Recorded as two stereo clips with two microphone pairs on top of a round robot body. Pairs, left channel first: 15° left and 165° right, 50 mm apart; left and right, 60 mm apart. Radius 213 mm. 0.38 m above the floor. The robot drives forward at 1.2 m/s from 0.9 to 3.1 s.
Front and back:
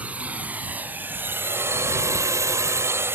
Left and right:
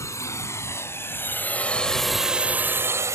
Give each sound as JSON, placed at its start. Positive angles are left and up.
{"t": 0.0, "sound": "a drone", "azimuth_deg": 130}